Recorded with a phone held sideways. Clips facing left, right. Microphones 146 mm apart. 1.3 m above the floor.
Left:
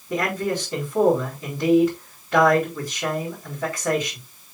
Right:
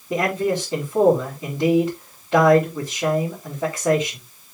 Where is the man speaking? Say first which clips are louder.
Right 3 dB; 20° right (ahead or behind), 4 m.